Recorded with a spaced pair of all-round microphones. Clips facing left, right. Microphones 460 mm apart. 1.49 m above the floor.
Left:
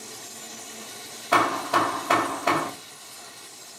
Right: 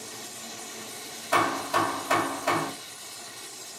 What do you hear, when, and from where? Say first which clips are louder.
1.3 s hammering: left 3 dB; 75° left (ahead or behind), 0.8 m